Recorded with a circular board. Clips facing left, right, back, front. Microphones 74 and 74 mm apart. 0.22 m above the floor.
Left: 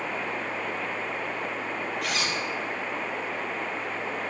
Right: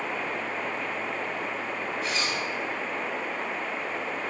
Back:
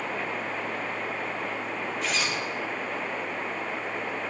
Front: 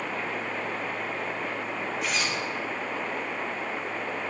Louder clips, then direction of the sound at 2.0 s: Even, back 1 dB; 85° left.